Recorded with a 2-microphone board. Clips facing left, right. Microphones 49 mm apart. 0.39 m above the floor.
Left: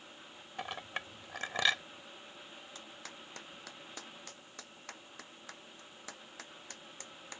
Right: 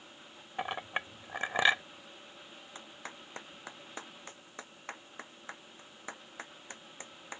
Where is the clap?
25° right (ahead or behind).